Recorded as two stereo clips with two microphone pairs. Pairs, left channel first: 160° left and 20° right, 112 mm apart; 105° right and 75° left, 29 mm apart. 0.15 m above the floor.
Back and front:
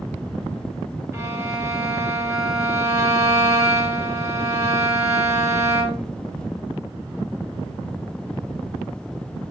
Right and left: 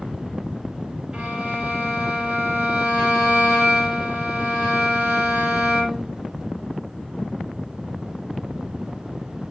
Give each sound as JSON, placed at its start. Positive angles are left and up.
{"t": 1.1, "sound": "a violin", "azimuth_deg": 30, "distance_m": 2.5}